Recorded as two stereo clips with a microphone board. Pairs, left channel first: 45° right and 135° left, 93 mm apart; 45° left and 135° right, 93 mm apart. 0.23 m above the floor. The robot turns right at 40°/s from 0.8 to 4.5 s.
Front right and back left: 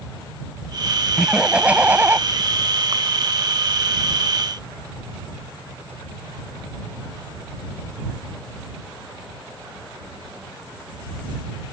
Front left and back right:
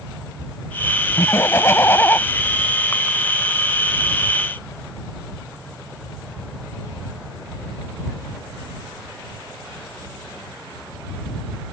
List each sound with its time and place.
1.2 s laughter: 55° left; by 2.2 s 95° left